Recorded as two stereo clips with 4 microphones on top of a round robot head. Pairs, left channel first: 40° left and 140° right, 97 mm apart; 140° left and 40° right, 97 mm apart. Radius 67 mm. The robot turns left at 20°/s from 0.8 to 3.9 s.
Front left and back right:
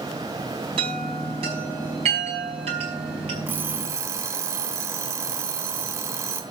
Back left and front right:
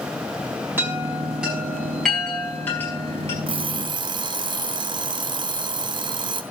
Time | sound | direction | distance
0.8 | a chime | 110° right | 7.5 m
3.5 | an alarm clock | 70° right | 1.2 m